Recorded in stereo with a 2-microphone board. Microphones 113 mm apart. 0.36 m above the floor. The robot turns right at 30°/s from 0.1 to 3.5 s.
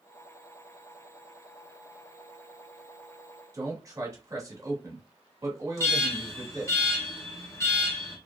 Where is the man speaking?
30° right (ahead or behind), 1.1 m.